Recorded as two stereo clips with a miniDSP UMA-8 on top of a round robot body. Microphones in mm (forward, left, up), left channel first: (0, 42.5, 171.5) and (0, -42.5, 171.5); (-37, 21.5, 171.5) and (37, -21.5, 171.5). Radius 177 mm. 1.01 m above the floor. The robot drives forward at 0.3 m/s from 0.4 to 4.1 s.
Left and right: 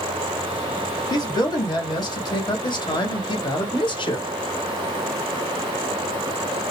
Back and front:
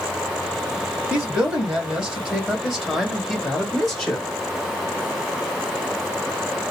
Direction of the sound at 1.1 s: 45° left.